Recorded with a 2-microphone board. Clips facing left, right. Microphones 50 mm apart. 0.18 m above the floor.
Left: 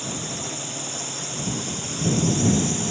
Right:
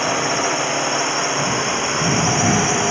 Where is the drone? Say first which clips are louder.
Right 13 dB; 65° right (ahead or behind); by 2.9 s 60° right (ahead or behind).